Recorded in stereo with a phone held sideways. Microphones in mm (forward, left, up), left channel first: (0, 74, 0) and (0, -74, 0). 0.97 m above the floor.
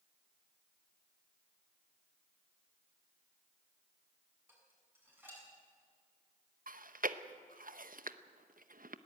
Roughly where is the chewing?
Right.